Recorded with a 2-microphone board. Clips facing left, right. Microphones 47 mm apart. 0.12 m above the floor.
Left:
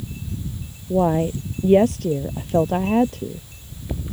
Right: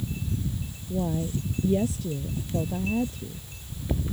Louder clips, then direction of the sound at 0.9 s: Left 10 dB; 60° left (ahead or behind).